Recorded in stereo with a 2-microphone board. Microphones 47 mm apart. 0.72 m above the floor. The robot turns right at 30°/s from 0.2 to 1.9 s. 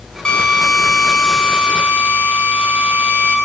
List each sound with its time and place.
0.2 s a drill: 160° left, 5.5 m; by 3.4 s 150° right, 5.5 m